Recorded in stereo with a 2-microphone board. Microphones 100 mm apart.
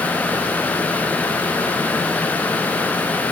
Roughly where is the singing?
No singing in this recording.